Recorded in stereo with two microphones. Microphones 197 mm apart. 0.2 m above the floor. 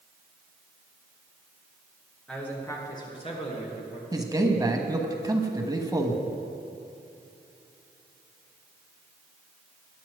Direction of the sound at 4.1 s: 20° right (ahead or behind).